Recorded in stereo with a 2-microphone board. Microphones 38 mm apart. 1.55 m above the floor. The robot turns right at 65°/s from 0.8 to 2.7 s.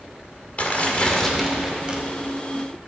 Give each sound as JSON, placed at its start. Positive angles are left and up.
{"t": 0.6, "sound": "tearing paper", "azimuth_deg": 140, "distance_m": 2.0}